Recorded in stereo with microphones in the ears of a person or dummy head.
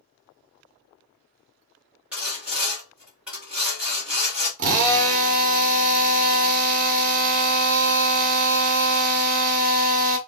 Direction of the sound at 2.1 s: 5° right (ahead or behind).